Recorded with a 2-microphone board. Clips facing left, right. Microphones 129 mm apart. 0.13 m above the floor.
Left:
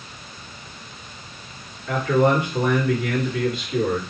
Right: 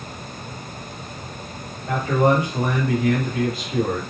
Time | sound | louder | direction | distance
1.9 | a man speaking | even | 40° right (ahead or behind) | 2 m